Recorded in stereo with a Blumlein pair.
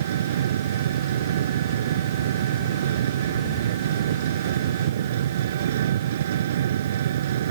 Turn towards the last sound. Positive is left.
turn(degrees=-60)